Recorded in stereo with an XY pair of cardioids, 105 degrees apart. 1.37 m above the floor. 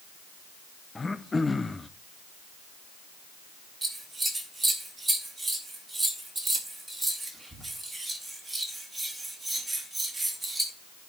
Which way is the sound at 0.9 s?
20° left.